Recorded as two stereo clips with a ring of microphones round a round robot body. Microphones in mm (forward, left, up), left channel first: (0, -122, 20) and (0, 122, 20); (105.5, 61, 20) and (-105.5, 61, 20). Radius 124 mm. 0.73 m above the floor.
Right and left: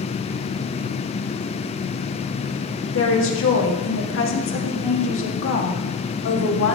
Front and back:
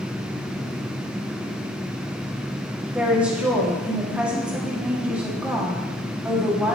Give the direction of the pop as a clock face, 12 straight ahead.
No pop in this recording.